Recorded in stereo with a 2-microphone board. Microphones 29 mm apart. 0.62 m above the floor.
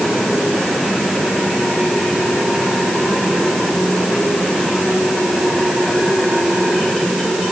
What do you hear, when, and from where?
Only background noise.